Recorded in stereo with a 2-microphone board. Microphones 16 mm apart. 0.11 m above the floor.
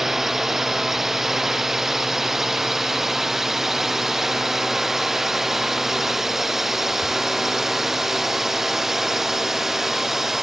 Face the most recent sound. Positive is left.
turn(degrees=-25)  # may be behind; listen again after turning